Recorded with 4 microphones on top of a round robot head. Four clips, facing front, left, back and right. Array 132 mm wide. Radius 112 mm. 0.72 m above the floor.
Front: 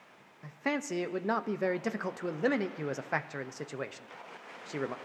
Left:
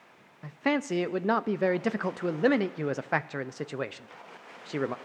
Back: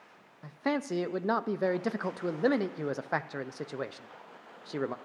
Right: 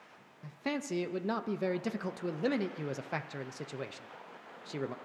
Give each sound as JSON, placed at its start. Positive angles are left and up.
{"t": 0.4, "sound": "a man speaking", "azimuth_deg": 105, "distance_m": 0.5}